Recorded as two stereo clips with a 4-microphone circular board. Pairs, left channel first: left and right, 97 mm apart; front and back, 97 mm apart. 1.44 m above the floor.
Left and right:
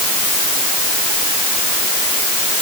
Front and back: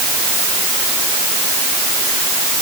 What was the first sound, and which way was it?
Only background noise.